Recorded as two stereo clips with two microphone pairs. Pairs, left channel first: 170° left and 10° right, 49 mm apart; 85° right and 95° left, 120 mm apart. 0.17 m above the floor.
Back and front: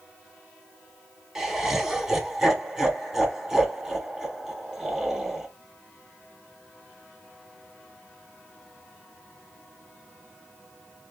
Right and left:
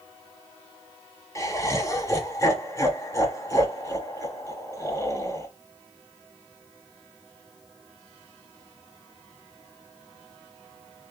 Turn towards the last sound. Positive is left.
turn(degrees=-90)